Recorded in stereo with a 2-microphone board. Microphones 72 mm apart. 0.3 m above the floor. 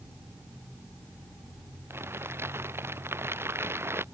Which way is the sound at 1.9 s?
35° right (ahead or behind).